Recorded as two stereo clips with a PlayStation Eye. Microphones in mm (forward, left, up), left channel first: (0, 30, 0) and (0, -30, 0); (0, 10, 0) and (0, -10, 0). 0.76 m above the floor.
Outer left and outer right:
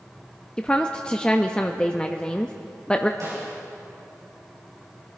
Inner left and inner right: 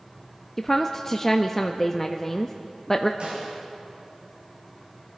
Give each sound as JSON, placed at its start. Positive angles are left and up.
{"t": 0.6, "sound": "a woman speaking", "side_deg": 15, "distance_m": 0.6}
{"t": 3.2, "sound": "a snare drum", "side_deg": -60, "distance_m": 6.0}